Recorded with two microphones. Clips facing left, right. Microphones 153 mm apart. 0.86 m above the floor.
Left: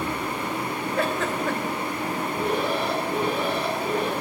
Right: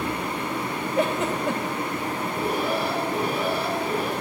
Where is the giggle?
20° right (ahead or behind), 2.5 m.